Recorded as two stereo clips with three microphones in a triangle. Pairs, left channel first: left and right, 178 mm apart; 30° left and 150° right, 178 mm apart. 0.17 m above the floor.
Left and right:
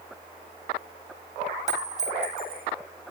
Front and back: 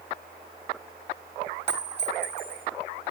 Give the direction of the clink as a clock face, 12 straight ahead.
11 o'clock.